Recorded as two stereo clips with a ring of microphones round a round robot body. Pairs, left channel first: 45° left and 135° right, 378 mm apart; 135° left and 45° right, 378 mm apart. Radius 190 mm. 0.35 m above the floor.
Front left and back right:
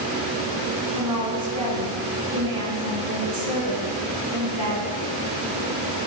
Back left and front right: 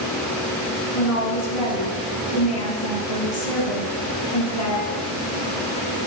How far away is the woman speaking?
About 3.5 m.